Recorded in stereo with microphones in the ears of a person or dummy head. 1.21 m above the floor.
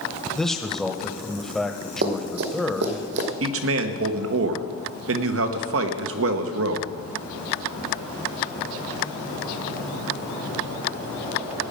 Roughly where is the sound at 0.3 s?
Centre.